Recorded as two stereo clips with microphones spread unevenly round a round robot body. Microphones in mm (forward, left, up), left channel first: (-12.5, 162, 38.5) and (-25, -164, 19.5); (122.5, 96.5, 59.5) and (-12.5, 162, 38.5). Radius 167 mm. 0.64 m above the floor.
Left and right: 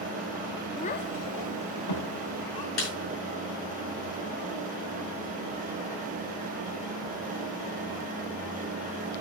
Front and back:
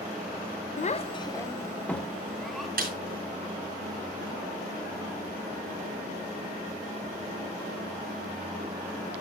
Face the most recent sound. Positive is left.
turn(degrees=135)